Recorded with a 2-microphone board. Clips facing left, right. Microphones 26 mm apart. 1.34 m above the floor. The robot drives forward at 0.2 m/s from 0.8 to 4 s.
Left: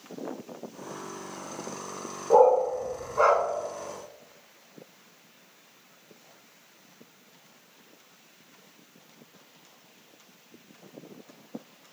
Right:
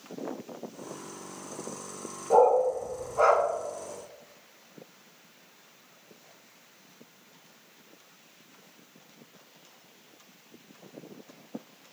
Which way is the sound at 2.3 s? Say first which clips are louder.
Left 2 dB; 15° left (ahead or behind).